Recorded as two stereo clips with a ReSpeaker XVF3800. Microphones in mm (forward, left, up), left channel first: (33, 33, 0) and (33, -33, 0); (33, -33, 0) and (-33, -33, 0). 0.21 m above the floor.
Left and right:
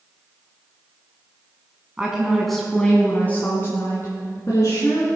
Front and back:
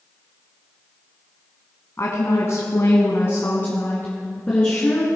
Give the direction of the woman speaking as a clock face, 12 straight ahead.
1 o'clock.